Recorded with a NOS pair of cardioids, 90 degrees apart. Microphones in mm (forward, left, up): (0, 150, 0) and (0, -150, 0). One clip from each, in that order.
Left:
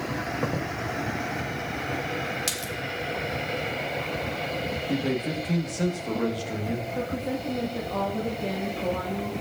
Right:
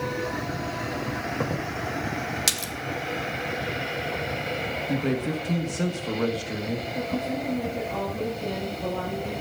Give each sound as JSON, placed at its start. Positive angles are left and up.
{"t": 2.5, "sound": "a splash", "azimuth_deg": -30, "distance_m": 0.8}
{"t": 4.9, "sound": "a man speaking", "azimuth_deg": -5, "distance_m": 1.5}
{"t": 7.0, "sound": "a woman speaking", "azimuth_deg": 15, "distance_m": 1.9}